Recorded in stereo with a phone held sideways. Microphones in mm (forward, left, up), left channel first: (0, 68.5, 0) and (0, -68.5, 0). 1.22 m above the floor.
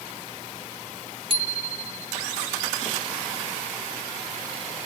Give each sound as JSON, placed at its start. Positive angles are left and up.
{"t": 1.3, "sound": "a bicycle bell", "side_deg": -40}